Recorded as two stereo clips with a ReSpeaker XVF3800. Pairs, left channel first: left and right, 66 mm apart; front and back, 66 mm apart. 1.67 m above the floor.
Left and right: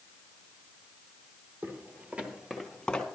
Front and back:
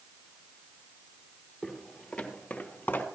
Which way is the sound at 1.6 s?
95° right.